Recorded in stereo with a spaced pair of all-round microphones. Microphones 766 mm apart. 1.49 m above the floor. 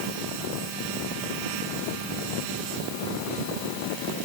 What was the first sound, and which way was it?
Only background noise.